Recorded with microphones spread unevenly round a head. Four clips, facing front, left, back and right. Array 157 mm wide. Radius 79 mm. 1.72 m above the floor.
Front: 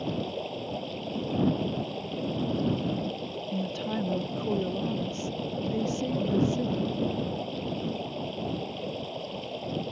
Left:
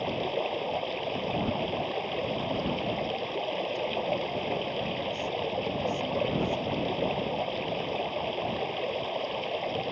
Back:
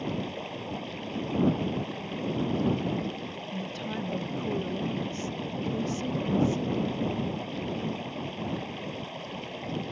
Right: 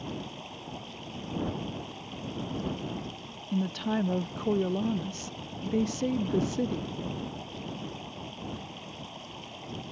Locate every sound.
0.0 s running water: 65° left
3.5 s a woman speaking: 65° right